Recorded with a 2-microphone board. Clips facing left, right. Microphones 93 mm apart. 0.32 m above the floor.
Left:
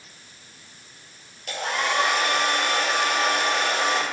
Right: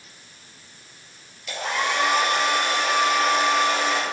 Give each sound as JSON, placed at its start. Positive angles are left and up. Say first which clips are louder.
{"t": 1.5, "sound": "a hair dryer", "louder": "even", "side_deg": 50, "distance_m": 5.0}